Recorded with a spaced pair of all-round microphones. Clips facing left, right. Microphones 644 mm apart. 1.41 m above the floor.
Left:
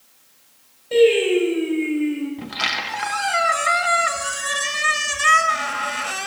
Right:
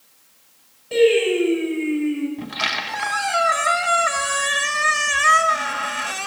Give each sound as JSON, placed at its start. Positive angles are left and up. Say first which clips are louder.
{"t": 0.9, "sound": "singing", "louder": "left 1 dB", "side_deg": -5, "distance_m": 6.0}
{"t": 2.4, "sound": "a squeak", "louder": "right 1 dB", "side_deg": 0, "distance_m": 0.6}